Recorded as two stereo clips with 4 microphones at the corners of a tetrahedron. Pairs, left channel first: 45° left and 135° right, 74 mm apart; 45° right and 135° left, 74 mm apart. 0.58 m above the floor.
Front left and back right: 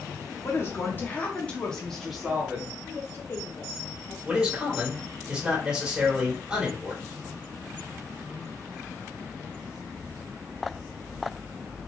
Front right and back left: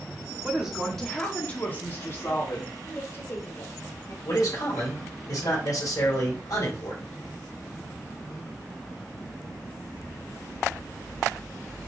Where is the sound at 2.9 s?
Straight ahead, 1.9 m.